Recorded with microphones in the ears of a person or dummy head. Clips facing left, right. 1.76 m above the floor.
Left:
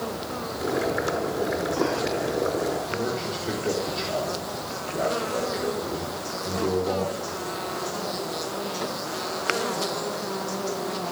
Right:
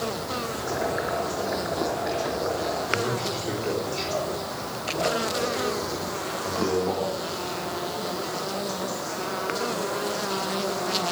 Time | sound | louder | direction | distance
0.6 | boiling | left 4 dB | 45° left (ahead or behind) | 5 m
2.9 | a man speaking | right 1 dB | 10° left (ahead or behind) | 4 m